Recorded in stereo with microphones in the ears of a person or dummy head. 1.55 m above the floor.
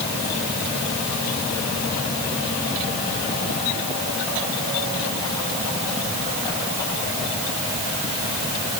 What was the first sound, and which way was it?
Only background noise.